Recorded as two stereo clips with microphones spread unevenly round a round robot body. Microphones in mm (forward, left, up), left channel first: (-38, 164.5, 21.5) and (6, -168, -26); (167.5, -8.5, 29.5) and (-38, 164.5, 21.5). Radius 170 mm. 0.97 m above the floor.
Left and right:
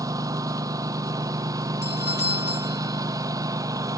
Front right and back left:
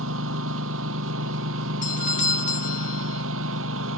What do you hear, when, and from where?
0.0 s a lawn mower: 165° right
1.8 s a doorbell: 25° left